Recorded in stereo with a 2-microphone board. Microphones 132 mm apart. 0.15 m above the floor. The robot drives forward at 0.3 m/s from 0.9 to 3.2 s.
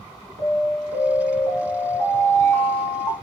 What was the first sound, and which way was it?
An alarm, 10° left (ahead or behind).